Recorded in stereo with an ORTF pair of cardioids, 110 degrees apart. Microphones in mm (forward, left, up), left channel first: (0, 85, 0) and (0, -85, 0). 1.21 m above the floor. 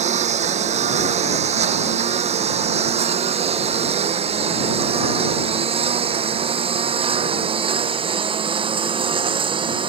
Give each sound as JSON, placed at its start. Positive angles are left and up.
{"t": 0.0, "sound": "a lawn mower", "azimuth_deg": -40}